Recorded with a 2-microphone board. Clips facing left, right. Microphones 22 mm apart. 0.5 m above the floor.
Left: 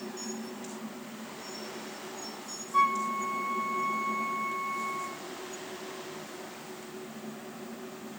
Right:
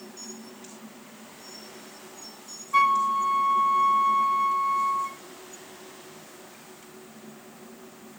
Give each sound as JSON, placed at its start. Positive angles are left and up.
{"t": 2.7, "sound": "a flute", "side_deg": -65, "distance_m": 0.5}